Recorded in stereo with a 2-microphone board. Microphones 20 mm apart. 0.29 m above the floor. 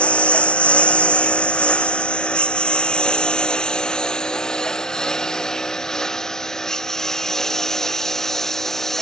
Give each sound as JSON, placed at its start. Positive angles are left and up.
{"t": 0.0, "sound": "a lawn mower", "side_deg": 85}